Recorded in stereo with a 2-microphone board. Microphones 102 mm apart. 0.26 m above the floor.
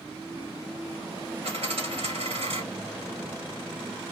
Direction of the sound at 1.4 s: 75° right (ahead or behind).